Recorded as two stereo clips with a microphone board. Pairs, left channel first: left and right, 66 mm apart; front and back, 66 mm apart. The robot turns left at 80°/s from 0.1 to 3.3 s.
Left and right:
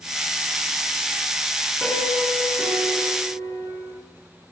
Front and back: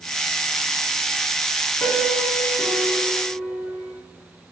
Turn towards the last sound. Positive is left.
turn(degrees=-95)